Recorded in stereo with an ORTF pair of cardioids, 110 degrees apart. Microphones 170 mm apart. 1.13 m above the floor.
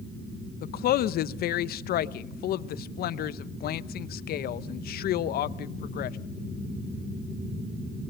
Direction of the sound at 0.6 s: 60° left.